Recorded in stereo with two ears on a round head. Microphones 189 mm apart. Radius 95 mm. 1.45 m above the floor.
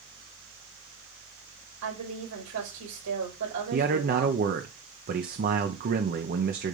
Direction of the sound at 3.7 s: 45° right (ahead or behind).